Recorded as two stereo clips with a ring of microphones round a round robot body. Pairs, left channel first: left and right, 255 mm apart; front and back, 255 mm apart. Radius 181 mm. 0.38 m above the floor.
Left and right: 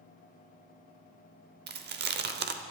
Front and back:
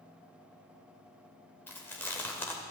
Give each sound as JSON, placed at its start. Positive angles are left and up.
{"t": 1.7, "sound": "chewing", "azimuth_deg": -80, "distance_m": 0.9}